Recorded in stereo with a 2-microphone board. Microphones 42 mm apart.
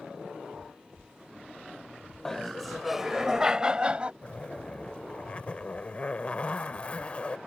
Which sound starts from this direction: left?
A zipper, at 4.2 s.